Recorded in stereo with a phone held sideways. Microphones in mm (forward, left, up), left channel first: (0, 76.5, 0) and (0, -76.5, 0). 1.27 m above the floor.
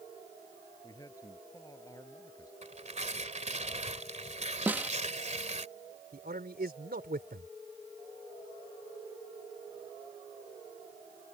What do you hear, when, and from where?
0.8 s a man speaking: 20° left (ahead or behind)
2.6 s tearing paper: 45° right (ahead or behind)
4.7 s a snare drum: 10° right (ahead or behind)
6.1 s a man speaking: 80° right